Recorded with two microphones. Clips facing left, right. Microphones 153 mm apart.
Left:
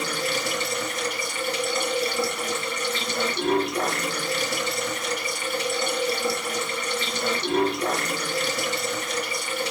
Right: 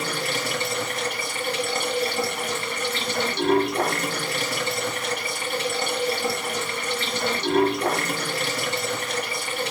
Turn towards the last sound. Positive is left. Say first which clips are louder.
# even
turn(degrees=-60)  # may be behind; listen again after turning